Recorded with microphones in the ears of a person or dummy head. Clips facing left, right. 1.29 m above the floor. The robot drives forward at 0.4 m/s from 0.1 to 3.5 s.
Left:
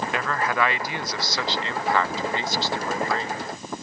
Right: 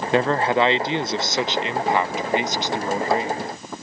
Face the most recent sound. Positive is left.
turn(degrees=-5)  # may be behind; listen again after turning